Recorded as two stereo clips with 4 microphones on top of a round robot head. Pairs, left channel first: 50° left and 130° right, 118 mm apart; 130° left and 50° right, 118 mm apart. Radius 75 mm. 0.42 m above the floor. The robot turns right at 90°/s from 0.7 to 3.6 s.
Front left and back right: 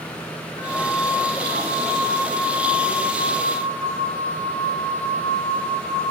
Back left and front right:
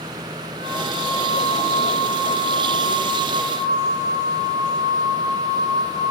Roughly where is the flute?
Ahead.